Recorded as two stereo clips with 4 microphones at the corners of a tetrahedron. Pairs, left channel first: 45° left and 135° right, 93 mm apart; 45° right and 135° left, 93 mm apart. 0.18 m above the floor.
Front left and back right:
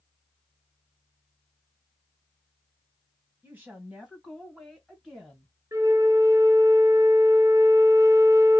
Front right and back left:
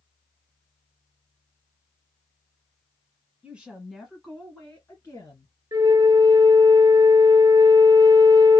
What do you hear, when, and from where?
3.4 s a woman speaking: straight behind, 1.6 m; by 5.5 s 40° right, 1.8 m
5.7 s a flute: 170° left, 0.5 m